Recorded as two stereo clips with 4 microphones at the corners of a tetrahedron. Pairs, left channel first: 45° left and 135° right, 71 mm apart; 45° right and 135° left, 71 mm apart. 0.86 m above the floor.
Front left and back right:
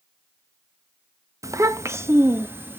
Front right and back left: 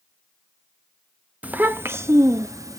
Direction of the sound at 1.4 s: 160° right.